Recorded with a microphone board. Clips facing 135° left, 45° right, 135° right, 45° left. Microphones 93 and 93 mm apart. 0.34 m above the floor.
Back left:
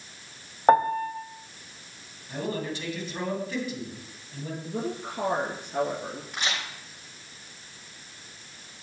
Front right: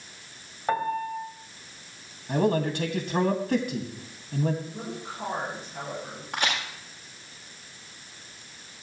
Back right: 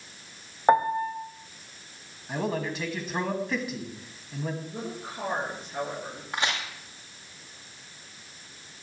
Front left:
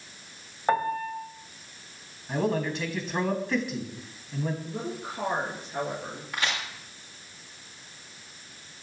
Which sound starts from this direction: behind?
A piano, at 0.7 s.